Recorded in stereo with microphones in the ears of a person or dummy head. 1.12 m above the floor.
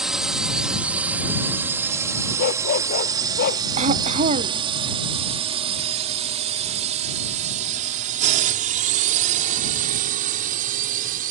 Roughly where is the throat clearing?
Right.